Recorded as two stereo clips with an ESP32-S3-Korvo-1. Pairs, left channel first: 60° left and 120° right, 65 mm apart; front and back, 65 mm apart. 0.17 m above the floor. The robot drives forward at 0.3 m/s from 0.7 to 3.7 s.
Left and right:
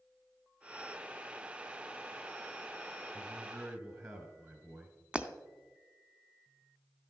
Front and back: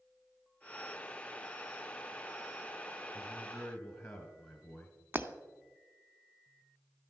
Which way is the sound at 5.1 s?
Straight behind.